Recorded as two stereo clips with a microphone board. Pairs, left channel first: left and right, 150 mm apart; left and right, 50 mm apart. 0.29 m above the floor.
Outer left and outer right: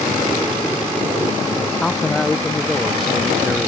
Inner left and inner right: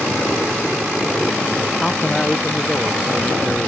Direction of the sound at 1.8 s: 5° left (ahead or behind).